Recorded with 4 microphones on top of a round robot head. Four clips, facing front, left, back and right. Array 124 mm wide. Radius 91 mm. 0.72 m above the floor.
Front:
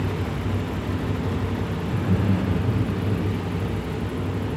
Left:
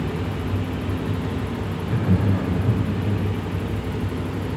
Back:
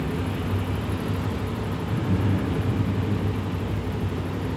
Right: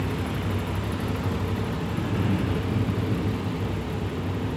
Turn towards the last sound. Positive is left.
turn(degrees=70)